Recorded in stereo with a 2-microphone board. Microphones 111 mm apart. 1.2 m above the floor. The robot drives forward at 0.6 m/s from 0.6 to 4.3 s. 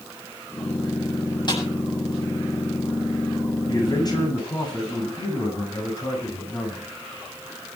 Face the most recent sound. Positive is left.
turn(degrees=40)  # may be behind; listen again after turning